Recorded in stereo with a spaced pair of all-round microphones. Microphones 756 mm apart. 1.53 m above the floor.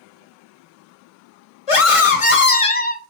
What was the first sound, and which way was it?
A scream, 45° left (ahead or behind).